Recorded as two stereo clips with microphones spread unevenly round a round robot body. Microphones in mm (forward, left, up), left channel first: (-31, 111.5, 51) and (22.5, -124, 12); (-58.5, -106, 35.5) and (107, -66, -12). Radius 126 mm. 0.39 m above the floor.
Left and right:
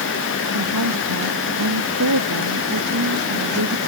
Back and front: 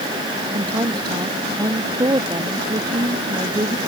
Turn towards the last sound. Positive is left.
turn(degrees=-55)